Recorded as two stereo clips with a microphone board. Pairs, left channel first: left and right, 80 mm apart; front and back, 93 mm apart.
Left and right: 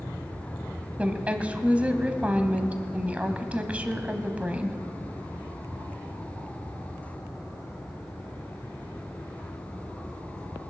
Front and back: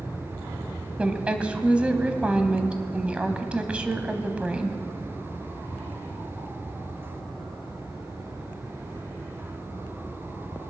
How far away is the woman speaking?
About 1.0 m.